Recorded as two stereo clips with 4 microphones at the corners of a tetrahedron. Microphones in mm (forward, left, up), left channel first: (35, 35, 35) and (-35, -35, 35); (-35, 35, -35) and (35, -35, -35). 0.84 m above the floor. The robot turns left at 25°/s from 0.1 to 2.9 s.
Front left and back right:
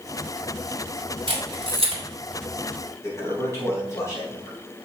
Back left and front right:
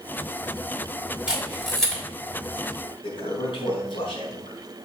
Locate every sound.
1.3 s a camera shutter: 125° right, 3.5 m; by 2.0 s 145° right, 3.5 m
3.0 s a toilet flushing: 105° left, 4.5 m